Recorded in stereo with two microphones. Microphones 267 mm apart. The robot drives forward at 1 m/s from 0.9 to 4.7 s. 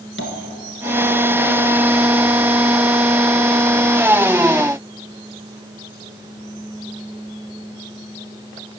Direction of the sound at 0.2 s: 50° left (ahead or behind).